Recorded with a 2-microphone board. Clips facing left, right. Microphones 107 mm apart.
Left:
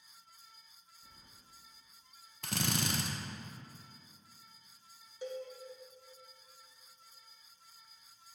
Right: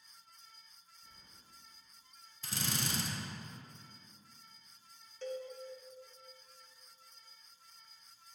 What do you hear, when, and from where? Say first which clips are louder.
1.0 s keys jangling: left 2 dB; 30° left (ahead or behind), 1.2 m
2.4 s a drill: left 4 dB; 60° left (ahead or behind), 0.6 m
5.2 s a cowbell: even; 10° left (ahead or behind), 0.9 m